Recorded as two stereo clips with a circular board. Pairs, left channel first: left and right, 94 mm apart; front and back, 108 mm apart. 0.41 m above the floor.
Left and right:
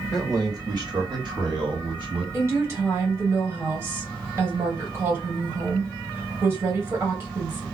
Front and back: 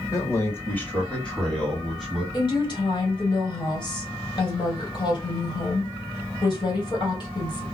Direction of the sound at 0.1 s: 50° right.